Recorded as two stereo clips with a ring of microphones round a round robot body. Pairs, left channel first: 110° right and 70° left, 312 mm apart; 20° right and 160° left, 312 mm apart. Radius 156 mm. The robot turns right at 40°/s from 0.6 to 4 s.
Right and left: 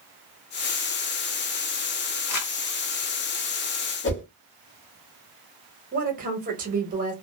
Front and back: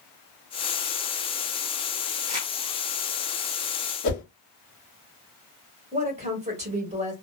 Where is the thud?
No thud in this recording.